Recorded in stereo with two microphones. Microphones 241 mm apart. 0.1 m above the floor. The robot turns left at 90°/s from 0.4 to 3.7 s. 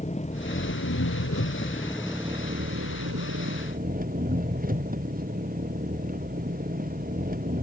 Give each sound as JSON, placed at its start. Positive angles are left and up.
{"t": 0.0, "sound": "an engine running", "azimuth_deg": 150}